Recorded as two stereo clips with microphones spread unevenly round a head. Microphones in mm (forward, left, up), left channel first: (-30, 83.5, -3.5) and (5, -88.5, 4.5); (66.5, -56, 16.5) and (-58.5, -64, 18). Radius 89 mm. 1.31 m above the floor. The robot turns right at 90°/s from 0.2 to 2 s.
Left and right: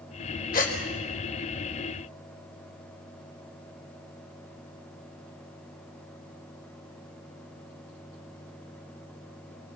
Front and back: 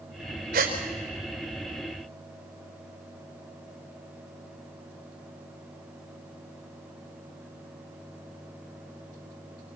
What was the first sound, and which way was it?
A gasp, 140° left.